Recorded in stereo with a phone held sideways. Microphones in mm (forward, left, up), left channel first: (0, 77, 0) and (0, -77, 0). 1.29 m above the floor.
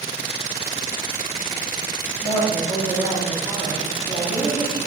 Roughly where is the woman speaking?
Centre.